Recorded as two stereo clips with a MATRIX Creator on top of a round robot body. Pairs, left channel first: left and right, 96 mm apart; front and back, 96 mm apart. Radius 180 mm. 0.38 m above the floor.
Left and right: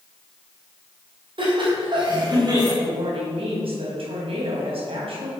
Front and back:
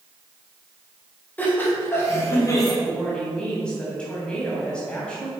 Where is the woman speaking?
80° right, 3.5 m.